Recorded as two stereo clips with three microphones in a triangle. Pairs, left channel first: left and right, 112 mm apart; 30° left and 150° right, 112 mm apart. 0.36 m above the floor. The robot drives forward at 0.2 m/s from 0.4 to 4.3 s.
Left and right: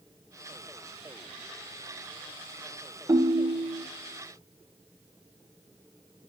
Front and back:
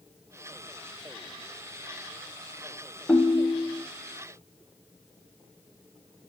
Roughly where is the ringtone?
Ahead right.